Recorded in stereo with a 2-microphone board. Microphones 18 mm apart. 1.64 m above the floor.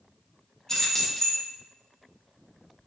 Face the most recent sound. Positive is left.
turn(degrees=20)  # may be behind; listen again after turning